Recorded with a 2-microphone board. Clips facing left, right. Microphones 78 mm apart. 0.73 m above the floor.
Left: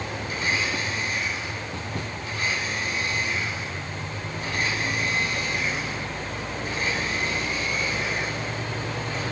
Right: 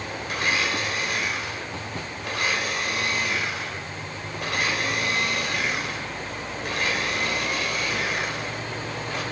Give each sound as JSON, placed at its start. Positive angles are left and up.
{"t": 0.3, "sound": "a blender", "side_deg": -70, "distance_m": 4.0}